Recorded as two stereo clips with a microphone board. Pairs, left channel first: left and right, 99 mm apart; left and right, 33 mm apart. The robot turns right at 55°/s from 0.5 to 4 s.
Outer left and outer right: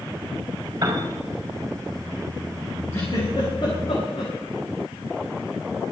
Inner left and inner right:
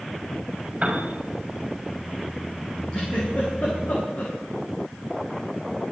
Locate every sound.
0.8 s a piano: 45° right (ahead or behind), 5.5 m; by 1.1 s 60° right (ahead or behind), 5.5 m
2.9 s a giggle: 25° left (ahead or behind), 8.5 m; by 4.3 s 85° left, 8.5 m